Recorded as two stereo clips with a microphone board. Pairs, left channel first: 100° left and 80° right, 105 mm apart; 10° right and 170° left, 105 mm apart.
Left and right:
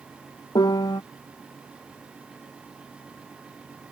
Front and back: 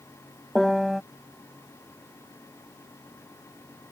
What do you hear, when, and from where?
0.6 s a piano: 80° left